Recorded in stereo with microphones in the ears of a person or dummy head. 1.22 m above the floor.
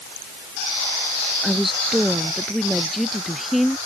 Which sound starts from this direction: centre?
A woman speaking, at 1.4 s.